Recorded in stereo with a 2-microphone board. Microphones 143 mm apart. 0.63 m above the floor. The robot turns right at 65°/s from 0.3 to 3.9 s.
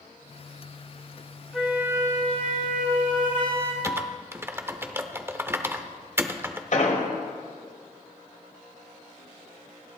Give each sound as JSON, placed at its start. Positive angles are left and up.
{"t": 1.5, "sound": "a flute", "azimuth_deg": 175, "distance_m": 3.5}
{"t": 3.8, "sound": "typing on a keyboard", "side_deg": -20, "distance_m": 0.7}
{"t": 6.7, "sound": "an explosion", "side_deg": 60, "distance_m": 1.7}